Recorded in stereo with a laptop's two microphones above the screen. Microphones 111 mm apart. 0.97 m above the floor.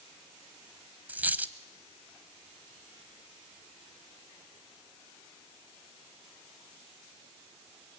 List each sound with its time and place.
1.1 s a dropped coin: 15° right (ahead or behind), 0.8 m